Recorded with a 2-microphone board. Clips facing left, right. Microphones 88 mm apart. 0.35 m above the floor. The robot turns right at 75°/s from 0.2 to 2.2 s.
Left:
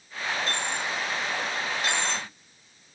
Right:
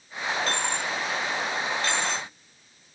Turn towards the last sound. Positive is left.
turn(degrees=30)  # may be behind; listen again after turning